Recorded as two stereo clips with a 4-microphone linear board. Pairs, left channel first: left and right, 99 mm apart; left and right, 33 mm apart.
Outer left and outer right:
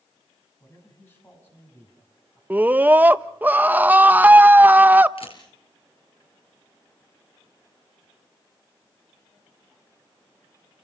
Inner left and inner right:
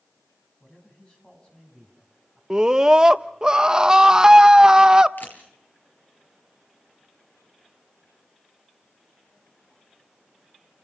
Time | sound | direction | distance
0.6 | a man speaking | 25° left (ahead or behind) | 7 m
2.5 | a scream | 20° right (ahead or behind) | 0.7 m
5.2 | a camera shutter | 65° left (ahead or behind) | 4.5 m